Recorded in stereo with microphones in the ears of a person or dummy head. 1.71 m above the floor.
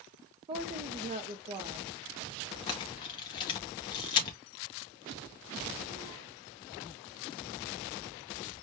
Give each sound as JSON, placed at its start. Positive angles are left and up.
{"t": 0.5, "sound": "a woman speaking", "side_deg": -25, "distance_m": 0.6}
{"t": 2.7, "sound": "a camera shutter", "side_deg": 25, "distance_m": 0.6}